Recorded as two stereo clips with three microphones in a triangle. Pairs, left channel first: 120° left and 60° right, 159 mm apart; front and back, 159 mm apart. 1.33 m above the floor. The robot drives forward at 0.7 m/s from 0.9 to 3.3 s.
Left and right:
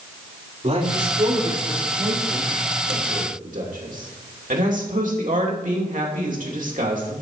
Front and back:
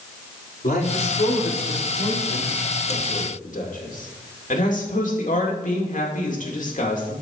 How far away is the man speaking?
About 4 m.